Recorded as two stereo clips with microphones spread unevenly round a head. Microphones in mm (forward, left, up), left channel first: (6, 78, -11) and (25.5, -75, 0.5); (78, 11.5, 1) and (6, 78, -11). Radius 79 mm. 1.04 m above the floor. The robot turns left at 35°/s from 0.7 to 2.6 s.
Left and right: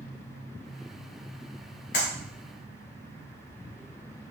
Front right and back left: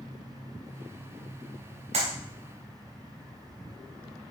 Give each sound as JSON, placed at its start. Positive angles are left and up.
{"t": 1.9, "sound": "a clap", "azimuth_deg": 135, "distance_m": 3.5}